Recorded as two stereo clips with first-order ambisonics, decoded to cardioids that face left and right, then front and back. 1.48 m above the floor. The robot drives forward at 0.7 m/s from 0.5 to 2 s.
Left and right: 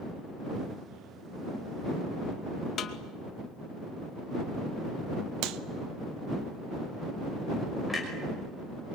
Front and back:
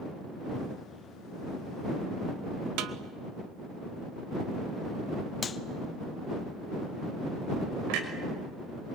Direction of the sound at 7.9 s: 175° right.